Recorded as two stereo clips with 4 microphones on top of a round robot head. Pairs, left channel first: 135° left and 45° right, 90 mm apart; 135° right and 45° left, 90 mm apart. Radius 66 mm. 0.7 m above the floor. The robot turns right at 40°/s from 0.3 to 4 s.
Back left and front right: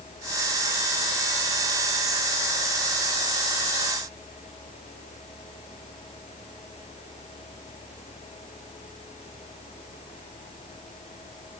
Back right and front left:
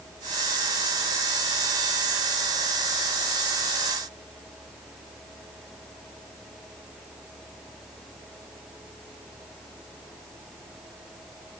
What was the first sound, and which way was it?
Only background noise.